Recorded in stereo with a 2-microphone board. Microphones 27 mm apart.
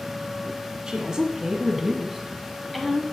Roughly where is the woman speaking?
Right.